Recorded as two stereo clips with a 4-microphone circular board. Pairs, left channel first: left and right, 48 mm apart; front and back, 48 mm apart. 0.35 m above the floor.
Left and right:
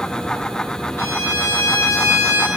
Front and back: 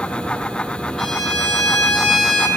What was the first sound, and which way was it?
A violin, 85° left.